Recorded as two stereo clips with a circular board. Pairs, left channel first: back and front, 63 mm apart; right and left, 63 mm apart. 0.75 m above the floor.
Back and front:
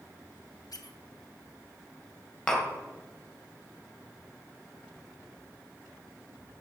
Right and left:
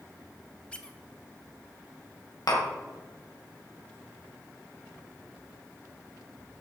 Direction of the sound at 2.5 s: 100° right.